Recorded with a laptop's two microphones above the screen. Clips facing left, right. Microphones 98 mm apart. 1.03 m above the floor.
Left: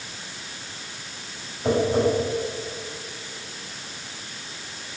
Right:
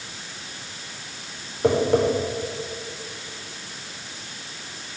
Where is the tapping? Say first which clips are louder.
Right 2 dB; 65° right (ahead or behind), 4.5 m.